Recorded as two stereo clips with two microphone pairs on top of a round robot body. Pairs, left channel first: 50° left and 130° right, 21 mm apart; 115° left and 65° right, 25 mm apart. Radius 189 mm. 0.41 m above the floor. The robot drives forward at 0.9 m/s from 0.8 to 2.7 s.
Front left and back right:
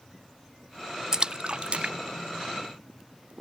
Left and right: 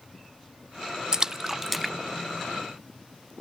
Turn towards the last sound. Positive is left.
turn(degrees=-160)